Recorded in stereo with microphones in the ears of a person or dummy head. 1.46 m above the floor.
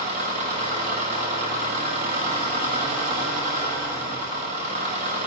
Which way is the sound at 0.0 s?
40° right (ahead or behind).